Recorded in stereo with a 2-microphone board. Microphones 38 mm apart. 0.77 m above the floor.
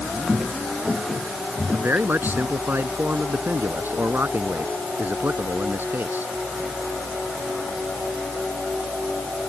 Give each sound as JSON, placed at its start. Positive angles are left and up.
{"t": 0.3, "sound": "footsteps", "side_deg": -5}
{"t": 1.7, "sound": "a man speaking", "side_deg": -65}